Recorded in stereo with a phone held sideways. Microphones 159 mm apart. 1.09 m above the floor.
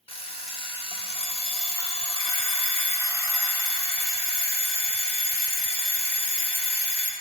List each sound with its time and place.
0.1 s an alarm clock: 35° left (ahead or behind), 1.0 m